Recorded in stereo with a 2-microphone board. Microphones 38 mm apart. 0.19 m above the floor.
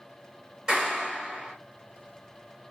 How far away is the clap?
About 2.5 m.